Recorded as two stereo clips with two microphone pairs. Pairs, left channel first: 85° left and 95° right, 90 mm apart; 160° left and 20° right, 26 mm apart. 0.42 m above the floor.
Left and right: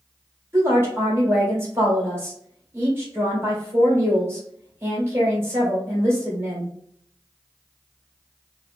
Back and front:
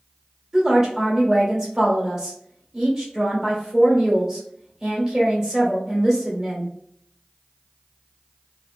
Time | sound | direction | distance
0.5 | a woman speaking | 55° right | 1.5 m